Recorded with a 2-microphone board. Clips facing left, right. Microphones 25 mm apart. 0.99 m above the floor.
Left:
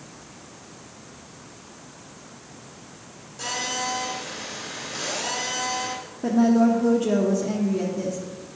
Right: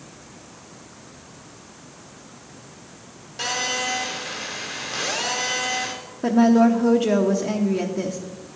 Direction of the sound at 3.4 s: 50° right (ahead or behind).